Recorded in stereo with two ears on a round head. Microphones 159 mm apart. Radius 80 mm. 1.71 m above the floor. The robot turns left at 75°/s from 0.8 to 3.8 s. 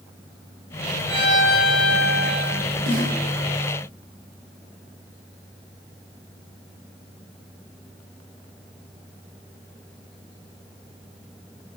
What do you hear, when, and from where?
1.1 s a violin: 170° right, 2.5 m; by 2.6 s 70° left, 2.5 m
2.9 s a snare drum: 70° right (ahead or behind), 3 m; by 3.1 s 50° right (ahead or behind), 3 m